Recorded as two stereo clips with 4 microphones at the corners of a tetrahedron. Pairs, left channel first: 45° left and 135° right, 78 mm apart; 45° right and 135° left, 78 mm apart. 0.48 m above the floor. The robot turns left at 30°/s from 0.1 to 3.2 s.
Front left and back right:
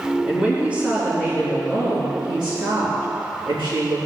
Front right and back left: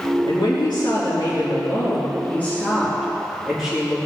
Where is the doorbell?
I don't hear a doorbell.